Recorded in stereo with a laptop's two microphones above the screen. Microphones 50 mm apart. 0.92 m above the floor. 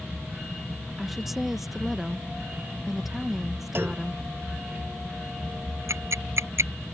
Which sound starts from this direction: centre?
A woman speaking, at 1.0 s.